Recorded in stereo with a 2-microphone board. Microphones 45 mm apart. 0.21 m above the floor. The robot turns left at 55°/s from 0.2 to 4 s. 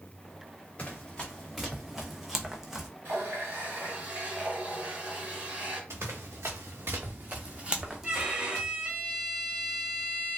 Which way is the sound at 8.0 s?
20° right (ahead or behind).